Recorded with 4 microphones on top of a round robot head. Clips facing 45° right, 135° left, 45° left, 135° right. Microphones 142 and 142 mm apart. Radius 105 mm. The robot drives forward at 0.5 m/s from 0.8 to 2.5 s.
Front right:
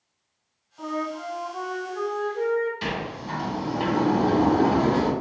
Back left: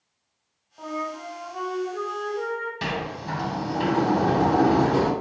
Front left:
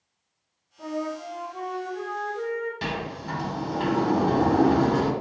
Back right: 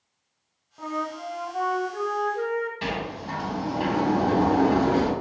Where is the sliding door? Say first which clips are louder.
Back left 1 dB, back right 1 dB; 100° left, 0.8 m.